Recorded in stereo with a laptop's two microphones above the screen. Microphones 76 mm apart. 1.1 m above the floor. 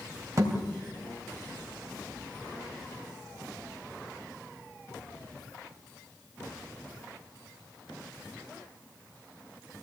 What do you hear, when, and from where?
0.4 s a thud: 45° right (ahead or behind), 3 m